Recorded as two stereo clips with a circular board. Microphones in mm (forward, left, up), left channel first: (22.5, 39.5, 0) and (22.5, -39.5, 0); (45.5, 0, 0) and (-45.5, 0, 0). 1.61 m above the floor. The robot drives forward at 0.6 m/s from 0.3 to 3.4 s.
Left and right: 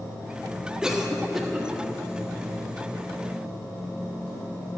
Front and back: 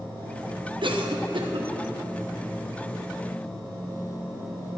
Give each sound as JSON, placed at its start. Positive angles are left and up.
{"t": 0.8, "sound": "a cough", "azimuth_deg": -170, "distance_m": 1.2}